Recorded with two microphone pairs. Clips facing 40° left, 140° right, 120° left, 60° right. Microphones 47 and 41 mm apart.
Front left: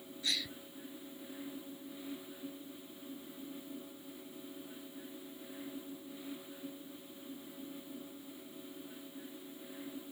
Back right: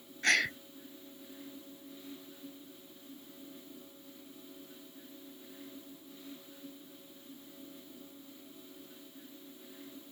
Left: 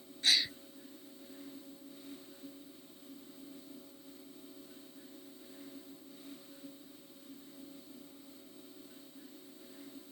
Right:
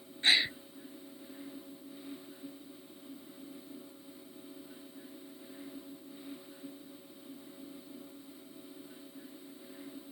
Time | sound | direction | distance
0.2 | a gasp | 115° right | ?